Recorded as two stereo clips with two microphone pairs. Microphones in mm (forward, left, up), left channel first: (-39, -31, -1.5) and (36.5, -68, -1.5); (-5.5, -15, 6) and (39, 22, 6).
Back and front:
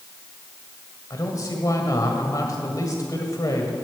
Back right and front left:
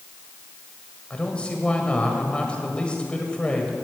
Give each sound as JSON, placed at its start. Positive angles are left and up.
{"t": 1.1, "sound": "a man speaking", "azimuth_deg": 155, "distance_m": 1.7}